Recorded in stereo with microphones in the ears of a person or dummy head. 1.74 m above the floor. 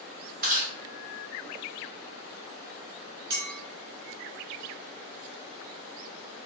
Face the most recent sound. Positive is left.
turn(degrees=-55)  # may be behind; listen again after turning